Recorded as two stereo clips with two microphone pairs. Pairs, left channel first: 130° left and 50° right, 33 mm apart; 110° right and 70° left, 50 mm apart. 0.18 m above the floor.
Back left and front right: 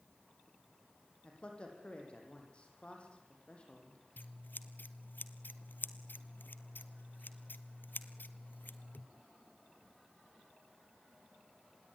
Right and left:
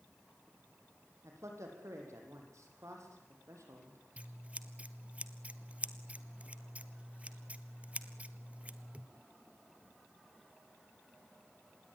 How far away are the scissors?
About 1.2 m.